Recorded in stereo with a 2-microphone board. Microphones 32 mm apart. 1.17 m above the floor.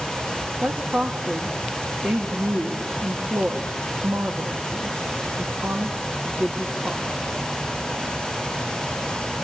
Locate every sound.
0.6 s a woman speaking: 80° right, 1.8 m